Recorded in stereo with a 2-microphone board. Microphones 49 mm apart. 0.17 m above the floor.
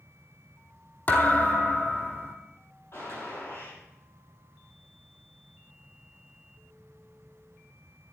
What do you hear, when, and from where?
1.1 s a thud: 40° left (ahead or behind), 1.7 m
2.9 s a gunshot: 70° left (ahead or behind), 6 m